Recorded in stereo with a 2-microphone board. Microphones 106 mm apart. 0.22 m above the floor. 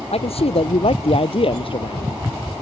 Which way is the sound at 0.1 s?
75° left (ahead or behind).